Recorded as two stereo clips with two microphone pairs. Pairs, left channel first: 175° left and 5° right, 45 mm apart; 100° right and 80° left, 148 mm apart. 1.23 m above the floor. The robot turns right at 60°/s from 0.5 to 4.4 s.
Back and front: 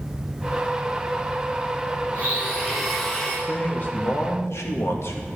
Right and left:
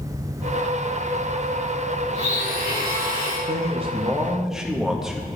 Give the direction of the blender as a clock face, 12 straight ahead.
11 o'clock.